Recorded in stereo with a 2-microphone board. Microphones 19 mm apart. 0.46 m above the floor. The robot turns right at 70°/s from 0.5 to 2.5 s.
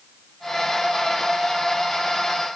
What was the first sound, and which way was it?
Only background noise.